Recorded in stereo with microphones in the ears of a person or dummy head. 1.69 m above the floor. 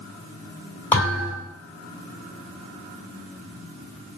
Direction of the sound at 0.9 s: 15° left (ahead or behind).